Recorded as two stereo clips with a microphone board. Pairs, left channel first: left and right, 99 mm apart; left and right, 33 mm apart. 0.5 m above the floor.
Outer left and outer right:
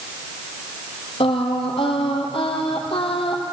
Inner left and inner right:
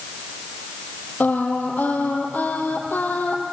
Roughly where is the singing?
Left.